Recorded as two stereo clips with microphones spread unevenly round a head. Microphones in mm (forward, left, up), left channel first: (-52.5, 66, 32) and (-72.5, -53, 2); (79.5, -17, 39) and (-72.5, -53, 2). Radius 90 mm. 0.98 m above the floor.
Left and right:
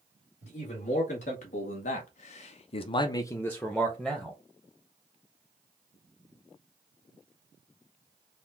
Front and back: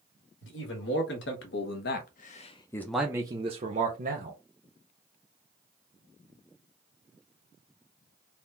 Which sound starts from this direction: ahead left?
A man speaking, at 0.4 s.